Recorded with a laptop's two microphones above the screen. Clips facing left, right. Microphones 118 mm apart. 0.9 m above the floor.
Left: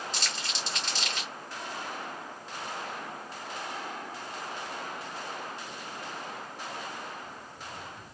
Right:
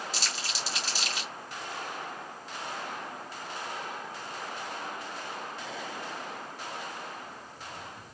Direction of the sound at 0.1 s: 5° right (ahead or behind).